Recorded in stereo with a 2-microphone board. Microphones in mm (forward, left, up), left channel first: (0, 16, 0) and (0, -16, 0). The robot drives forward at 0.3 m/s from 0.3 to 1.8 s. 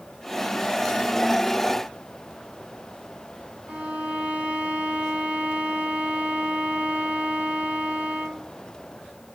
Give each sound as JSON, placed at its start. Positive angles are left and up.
{"t": 3.7, "sound": "a violin", "side_deg": -55, "distance_m": 0.9}